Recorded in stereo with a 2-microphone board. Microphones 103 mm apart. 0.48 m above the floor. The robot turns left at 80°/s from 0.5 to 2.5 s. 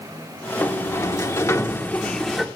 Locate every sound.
0.6 s a sliding door: 15° left (ahead or behind), 1.2 m; by 2.5 s 5° right (ahead or behind), 1.2 m